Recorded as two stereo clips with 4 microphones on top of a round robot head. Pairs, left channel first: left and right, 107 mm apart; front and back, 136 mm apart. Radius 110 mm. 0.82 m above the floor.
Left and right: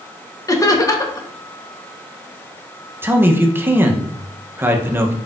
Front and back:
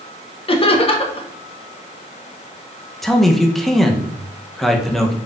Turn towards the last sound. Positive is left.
turn(degrees=-85)